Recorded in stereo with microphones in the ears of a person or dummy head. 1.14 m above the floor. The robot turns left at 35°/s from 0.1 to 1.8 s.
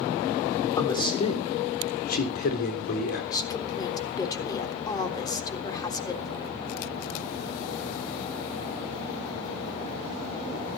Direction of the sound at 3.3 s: 20° left (ahead or behind).